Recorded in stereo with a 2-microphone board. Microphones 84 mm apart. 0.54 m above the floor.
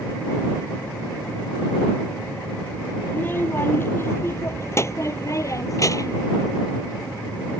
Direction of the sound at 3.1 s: 25° left (ahead or behind).